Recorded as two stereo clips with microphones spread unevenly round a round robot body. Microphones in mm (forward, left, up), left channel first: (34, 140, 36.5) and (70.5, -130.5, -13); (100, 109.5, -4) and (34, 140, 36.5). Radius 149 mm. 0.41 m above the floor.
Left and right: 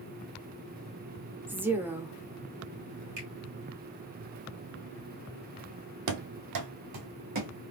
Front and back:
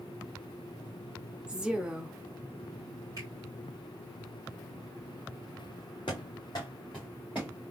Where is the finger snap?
135° right, 1.9 m.